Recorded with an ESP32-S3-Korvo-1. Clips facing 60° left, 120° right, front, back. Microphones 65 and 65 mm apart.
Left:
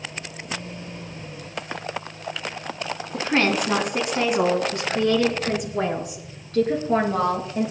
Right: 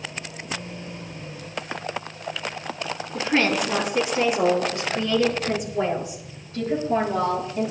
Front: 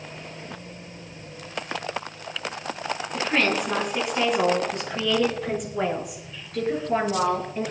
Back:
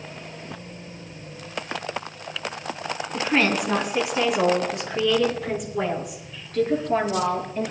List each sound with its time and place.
3.1 s a woman speaking: 100° left, 4 m; by 7.7 s 85° left, 6 m